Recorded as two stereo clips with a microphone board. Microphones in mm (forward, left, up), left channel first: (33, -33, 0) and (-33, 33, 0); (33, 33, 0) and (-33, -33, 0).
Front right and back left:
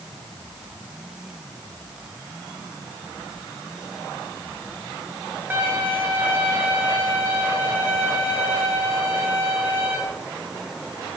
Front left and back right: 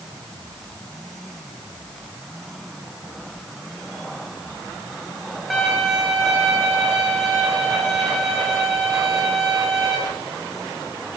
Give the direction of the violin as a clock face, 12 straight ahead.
7 o'clock.